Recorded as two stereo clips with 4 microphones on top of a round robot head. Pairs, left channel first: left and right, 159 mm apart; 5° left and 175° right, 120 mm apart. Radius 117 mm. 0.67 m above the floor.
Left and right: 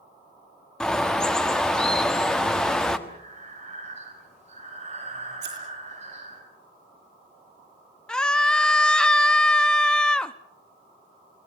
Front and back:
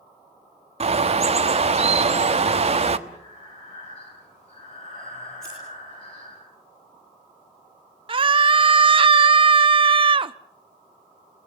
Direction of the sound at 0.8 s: 175° left.